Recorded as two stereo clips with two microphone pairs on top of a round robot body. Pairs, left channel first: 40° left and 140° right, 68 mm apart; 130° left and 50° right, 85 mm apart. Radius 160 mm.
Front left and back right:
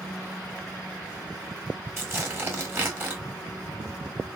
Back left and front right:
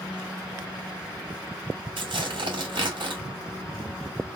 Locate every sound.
2.0 s tearing paper: 80° right, 1.6 m